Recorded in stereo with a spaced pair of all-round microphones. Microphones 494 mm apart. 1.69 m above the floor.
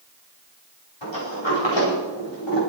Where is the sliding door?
60° left (ahead or behind), 4.5 m.